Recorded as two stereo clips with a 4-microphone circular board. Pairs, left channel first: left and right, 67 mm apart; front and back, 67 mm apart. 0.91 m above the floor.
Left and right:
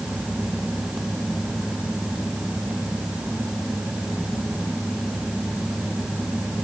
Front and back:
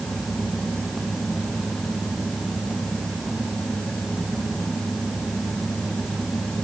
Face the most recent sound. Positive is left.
No sound to turn to.